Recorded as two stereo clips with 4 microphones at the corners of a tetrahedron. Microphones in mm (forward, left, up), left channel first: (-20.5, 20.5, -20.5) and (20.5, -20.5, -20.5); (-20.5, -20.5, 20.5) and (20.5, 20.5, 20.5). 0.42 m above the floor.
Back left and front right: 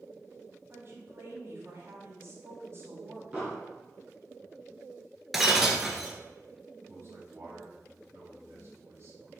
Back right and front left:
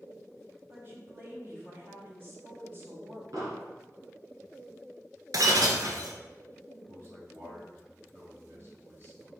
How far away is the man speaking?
About 2.5 m.